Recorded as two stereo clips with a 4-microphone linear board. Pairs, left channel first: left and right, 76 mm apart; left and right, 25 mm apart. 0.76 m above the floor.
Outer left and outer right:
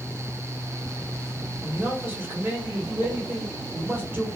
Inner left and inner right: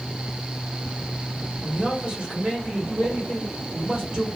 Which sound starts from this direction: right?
A man speaking, at 1.6 s.